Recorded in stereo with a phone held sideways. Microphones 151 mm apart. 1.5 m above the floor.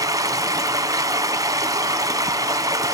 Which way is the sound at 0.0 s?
25° right (ahead or behind).